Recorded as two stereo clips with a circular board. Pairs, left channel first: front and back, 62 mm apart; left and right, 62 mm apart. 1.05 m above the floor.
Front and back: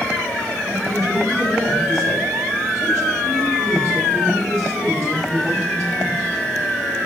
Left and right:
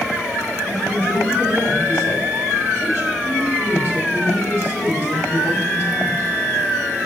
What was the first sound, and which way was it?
A woman speaking, 145° left.